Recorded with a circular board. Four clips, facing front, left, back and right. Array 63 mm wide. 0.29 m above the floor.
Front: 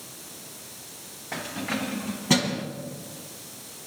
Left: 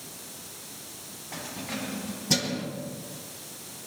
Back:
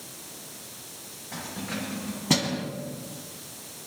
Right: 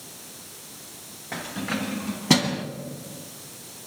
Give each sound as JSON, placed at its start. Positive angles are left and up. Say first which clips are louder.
{"t": 1.3, "sound": "keys jangling", "louder": "right 6 dB, front 4 dB", "azimuth_deg": -65, "distance_m": 2.5}